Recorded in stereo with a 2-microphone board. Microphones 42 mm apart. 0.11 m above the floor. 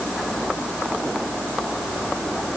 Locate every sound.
Only background noise.